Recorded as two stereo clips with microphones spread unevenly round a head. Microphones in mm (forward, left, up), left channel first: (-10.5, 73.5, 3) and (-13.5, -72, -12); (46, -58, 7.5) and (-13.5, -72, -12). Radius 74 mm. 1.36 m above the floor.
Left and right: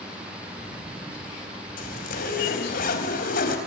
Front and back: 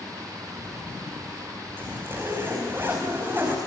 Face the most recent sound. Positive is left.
turn(degrees=115)